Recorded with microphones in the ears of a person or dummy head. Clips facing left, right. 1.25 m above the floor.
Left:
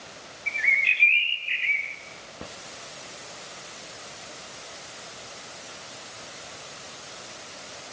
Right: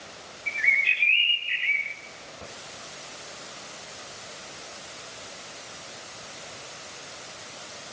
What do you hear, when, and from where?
0.5 s a bird: 5° right (ahead or behind), 1.6 m